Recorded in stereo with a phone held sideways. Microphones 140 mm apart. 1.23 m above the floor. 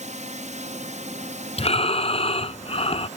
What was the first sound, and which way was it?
A drone, 60° right (ahead or behind).